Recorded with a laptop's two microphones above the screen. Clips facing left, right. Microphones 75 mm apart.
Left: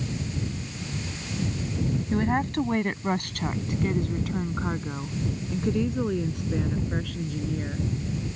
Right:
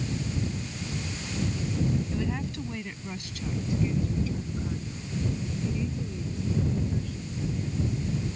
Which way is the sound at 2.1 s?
55° left (ahead or behind).